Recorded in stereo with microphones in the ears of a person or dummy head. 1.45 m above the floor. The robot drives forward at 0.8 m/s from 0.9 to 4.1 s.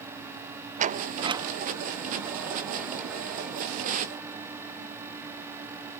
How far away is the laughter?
I don't hear laughter.